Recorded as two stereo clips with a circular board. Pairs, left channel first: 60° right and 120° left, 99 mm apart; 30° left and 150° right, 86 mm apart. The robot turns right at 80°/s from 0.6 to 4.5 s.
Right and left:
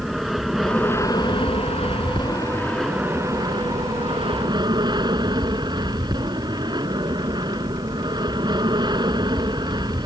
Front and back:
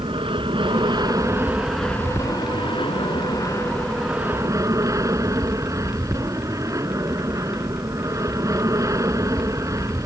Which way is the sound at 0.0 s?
150° right.